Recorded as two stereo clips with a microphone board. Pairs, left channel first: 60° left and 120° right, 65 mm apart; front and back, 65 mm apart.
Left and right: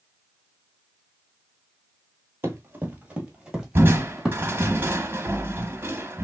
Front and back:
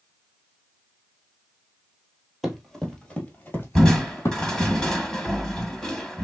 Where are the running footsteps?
95° right, 1.1 m; by 4.7 s 25° right, 1.7 m.